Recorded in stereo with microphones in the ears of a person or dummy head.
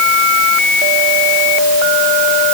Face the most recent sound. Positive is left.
No sound to turn to.